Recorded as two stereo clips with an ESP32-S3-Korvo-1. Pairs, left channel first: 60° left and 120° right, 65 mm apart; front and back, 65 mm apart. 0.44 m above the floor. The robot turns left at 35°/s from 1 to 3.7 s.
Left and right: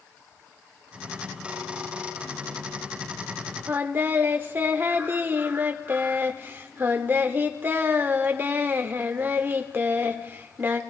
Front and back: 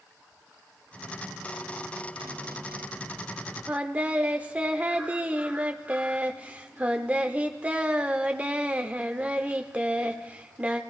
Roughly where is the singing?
Behind right.